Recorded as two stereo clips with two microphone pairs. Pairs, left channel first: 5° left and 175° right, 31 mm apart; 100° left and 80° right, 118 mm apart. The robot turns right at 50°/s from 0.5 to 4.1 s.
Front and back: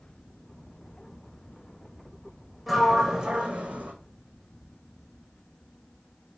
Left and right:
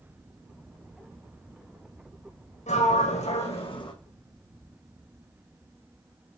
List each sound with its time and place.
2.7 s a sliding door: 90° left, 2 m; by 3.9 s 155° left, 2 m